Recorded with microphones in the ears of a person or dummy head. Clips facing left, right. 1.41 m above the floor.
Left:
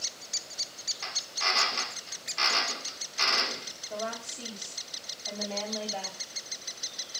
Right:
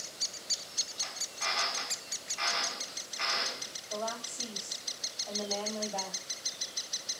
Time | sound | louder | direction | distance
1.0 | a drill | left 5 dB | 55° left (ahead or behind) | 1.8 m
3.9 | a woman speaking | left 1 dB | 35° left (ahead or behind) | 10 m